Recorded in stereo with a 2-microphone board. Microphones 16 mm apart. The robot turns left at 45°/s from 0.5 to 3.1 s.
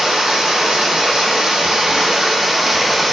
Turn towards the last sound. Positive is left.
turn(degrees=180)